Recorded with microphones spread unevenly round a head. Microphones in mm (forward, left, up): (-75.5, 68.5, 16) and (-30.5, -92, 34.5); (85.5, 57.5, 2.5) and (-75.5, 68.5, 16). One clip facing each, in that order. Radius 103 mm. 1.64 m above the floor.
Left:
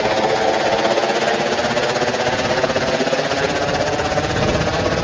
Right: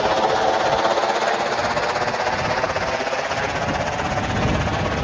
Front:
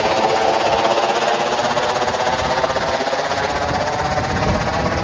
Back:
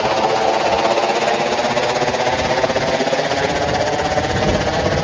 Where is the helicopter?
75° left; by 5.0 s 125° left.